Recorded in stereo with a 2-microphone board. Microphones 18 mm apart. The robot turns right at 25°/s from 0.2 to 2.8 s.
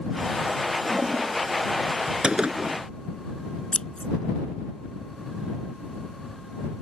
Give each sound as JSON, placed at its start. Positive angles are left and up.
{"t": 0.9, "sound": "a toilet flushing", "side_deg": -65}
{"t": 2.2, "sound": "a gunshot", "side_deg": -65}
{"t": 3.7, "sound": "scissors", "side_deg": 65}